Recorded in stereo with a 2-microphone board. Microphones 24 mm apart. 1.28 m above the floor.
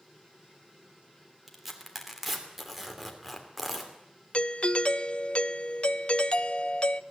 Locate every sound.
1.5 s tearing paper: 10° right (ahead or behind), 3 m
4.3 s a doorbell: 50° left (ahead or behind), 0.6 m